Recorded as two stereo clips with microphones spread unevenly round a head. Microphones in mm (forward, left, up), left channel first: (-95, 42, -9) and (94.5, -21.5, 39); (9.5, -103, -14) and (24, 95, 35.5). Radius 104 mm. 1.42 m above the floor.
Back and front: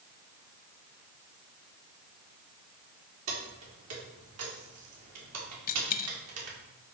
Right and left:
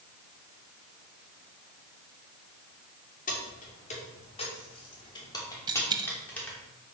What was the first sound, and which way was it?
Keys jangling, 40° right.